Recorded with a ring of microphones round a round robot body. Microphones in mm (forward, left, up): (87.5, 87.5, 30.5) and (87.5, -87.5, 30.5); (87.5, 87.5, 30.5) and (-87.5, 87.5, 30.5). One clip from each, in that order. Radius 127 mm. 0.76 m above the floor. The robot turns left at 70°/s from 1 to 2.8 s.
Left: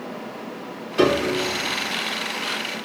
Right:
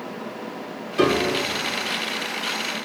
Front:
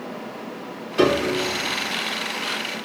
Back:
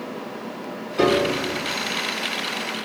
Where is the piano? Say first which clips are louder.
Left 1 dB, even; 20° left, 1.4 m; by 1.3 s 5° right, 1.4 m.